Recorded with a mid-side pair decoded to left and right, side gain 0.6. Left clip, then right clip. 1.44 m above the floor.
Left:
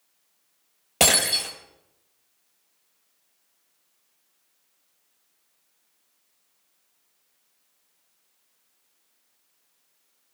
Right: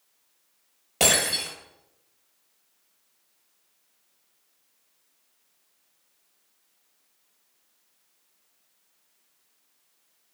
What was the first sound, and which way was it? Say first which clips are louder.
Breaking glass: left 2 dB; 35° left.